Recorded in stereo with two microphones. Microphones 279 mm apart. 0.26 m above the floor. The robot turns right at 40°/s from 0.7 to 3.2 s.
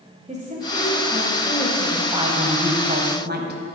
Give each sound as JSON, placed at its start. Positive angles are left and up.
{"t": 0.3, "sound": "a woman speaking", "side_deg": -25, "distance_m": 1.3}
{"t": 2.1, "sound": "a woman speaking", "azimuth_deg": -155, "distance_m": 1.3}